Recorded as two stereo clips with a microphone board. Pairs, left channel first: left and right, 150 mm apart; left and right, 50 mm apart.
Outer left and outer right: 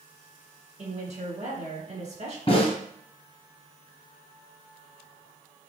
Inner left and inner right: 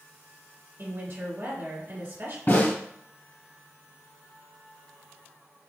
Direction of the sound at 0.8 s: 55° right (ahead or behind).